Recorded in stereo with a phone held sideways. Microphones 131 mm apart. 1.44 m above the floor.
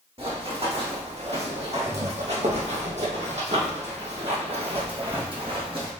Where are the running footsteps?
50° right (ahead or behind), 3.5 m; by 5.9 s 40° right (ahead or behind), 3 m.